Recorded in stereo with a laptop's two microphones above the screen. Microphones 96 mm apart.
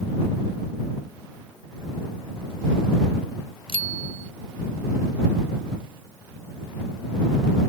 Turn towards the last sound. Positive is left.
turn(degrees=70)  # may be behind; listen again after turning